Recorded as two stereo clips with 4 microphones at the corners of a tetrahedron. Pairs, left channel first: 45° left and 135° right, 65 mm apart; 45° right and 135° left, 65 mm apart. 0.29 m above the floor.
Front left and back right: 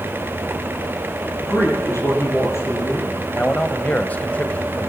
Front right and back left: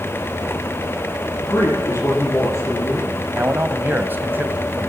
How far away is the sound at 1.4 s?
About 7.5 m.